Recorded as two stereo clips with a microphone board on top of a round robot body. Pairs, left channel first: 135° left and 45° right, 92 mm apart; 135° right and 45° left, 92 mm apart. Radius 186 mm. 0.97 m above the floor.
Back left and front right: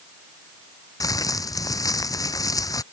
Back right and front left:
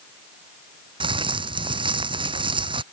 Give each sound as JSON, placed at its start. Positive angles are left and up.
{"t": 1.0, "sound": "crumpling", "azimuth_deg": 80}